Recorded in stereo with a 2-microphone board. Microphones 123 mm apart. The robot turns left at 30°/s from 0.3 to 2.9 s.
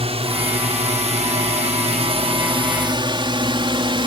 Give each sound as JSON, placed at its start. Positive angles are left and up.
{"t": 0.0, "sound": "a drone", "side_deg": -60}